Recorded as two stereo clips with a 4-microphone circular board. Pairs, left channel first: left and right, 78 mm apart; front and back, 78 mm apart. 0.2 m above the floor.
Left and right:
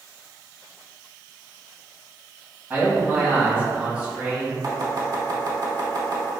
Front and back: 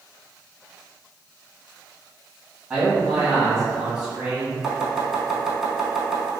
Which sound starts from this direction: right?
Chopping, at 4.6 s.